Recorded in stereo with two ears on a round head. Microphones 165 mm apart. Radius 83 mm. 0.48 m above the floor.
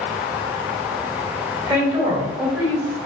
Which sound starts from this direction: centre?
A woman speaking, at 1.7 s.